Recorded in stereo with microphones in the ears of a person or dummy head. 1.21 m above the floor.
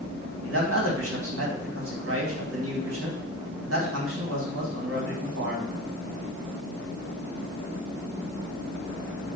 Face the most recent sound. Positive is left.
turn(degrees=-80)